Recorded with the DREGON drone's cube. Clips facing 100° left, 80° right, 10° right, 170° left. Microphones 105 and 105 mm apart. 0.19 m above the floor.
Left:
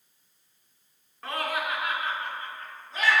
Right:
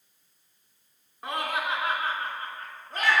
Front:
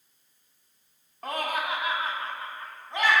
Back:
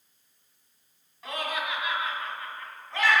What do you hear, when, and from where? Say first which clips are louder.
1.2 s laughter: even, front 3 dB; 10° right, 1.5 m; by 3.2 s 85° right, 1.9 m